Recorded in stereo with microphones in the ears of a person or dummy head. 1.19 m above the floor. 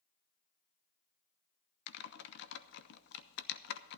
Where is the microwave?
I don't hear a microwave.